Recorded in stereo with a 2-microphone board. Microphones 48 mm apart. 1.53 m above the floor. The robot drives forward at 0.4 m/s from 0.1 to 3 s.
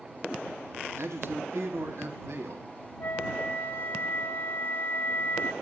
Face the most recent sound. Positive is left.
turn(degrees=45)  # may be behind; listen again after turning